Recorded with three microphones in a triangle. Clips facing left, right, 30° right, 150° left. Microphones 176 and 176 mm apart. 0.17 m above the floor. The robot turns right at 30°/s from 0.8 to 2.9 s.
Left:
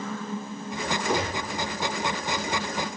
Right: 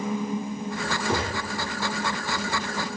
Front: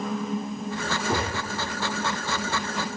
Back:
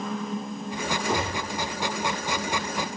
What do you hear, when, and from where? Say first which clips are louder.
1.1 s a gunshot: even, even; 50° right, 1.3 m; by 1.6 s 35° right, 1.3 m